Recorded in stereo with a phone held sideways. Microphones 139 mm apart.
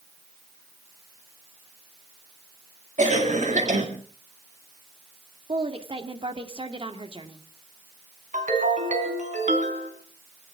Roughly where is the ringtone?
Right.